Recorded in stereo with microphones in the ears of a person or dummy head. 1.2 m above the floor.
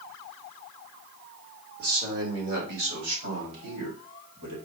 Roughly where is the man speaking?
Right.